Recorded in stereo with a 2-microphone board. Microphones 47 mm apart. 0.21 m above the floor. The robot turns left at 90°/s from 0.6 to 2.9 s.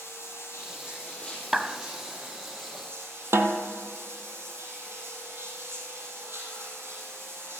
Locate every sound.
0.0 s running water: 80° left, 5.5 m; by 7.6 s 125° right, 5.5 m
1.5 s a clap: 10° right (ahead or behind), 0.8 m; by 1.8 s centre (ahead or behind), 0.8 m
3.3 s a snare drum: 70° right (ahead or behind), 1.2 m